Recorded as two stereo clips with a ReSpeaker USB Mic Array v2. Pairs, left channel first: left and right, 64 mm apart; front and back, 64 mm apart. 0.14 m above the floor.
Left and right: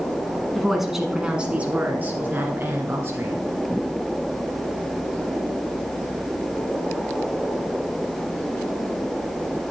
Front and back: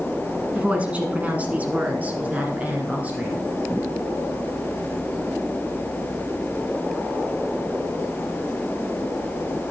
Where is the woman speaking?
175° left, 1.4 m; by 3.5 s 120° right, 2.5 m.